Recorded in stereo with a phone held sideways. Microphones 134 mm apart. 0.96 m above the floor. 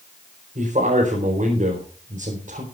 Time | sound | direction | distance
0.6 | a man speaking | 80° right | 4.5 m